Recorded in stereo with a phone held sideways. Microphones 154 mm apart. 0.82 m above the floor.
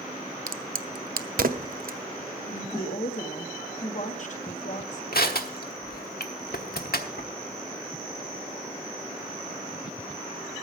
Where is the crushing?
80° left, 1.0 m.